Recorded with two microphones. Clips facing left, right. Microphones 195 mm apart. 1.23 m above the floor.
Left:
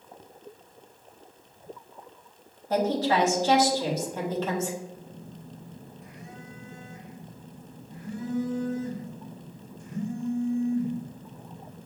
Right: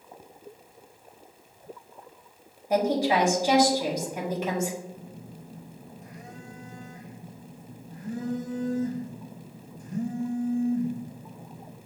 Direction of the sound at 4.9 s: 45° right (ahead or behind).